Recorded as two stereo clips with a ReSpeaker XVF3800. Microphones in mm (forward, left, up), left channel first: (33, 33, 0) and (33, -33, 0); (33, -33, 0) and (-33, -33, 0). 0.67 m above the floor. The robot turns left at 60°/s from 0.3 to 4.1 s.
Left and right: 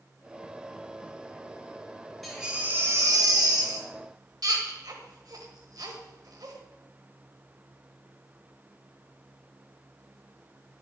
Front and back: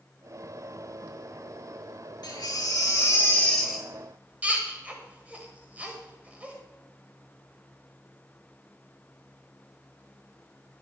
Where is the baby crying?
Straight ahead, 1.6 m; by 6.6 s 110° right, 1.6 m.